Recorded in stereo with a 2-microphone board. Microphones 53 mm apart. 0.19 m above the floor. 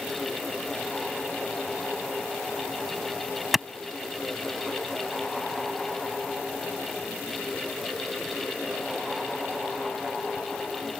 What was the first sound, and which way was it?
A clap, 5° right (ahead or behind).